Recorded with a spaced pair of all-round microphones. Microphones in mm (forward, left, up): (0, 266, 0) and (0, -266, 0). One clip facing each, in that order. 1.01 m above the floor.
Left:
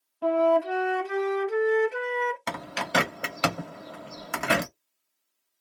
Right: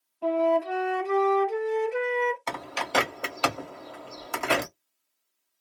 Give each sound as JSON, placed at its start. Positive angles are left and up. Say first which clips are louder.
{"t": 0.2, "sound": "a flute", "louder": "left 1 dB", "side_deg": 40, "distance_m": 0.6}
{"t": 2.5, "sound": "a bird", "louder": "left 1 dB", "side_deg": 40, "distance_m": 0.8}